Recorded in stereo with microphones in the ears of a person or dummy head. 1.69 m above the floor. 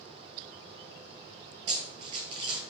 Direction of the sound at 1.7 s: 25° right (ahead or behind).